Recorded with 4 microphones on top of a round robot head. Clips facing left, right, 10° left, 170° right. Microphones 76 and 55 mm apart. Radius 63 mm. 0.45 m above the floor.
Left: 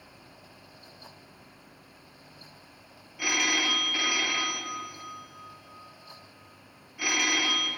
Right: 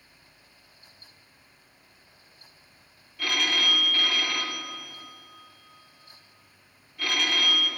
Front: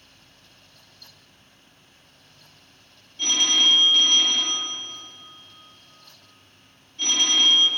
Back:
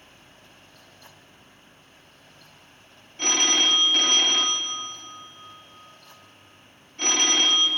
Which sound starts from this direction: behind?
A phone ringing, at 3.2 s.